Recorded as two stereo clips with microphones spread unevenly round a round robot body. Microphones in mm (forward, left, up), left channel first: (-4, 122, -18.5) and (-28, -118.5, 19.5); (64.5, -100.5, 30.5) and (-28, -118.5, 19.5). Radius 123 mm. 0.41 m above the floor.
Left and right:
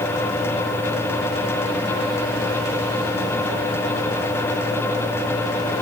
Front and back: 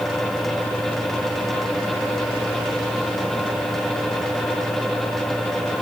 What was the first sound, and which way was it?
Only background noise.